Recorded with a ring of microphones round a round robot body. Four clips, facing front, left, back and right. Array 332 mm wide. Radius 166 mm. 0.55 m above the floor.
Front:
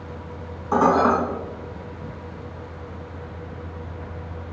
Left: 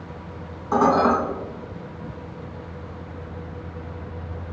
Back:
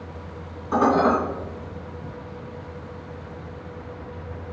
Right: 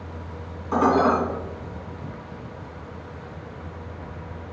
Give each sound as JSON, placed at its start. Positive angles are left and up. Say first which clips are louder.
{"t": 0.7, "sound": "dishes clattering", "louder": "left 1 dB, front 1 dB", "azimuth_deg": 40, "distance_m": 3.0}